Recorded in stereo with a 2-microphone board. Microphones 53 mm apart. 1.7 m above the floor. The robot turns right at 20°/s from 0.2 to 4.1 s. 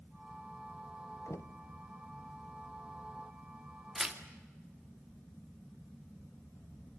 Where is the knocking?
65° left (ahead or behind), 1.0 m; by 1.6 s 60° left (ahead or behind), 1.0 m.